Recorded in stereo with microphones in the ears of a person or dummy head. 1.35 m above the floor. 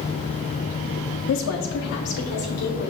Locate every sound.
1.3 s a woman speaking: 65° left (ahead or behind), 0.7 m; by 2.9 s 50° left (ahead or behind), 1.8 m